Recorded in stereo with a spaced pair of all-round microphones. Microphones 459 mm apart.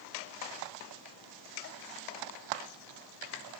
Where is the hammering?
I don't hear hammering.